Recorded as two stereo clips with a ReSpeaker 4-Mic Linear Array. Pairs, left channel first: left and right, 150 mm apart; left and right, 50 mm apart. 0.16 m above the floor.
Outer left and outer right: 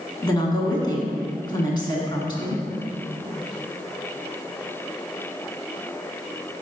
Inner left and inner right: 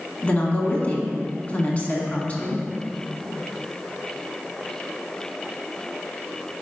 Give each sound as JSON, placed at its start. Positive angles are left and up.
{"t": 0.2, "sound": "a woman speaking", "side_deg": 30, "distance_m": 1.1}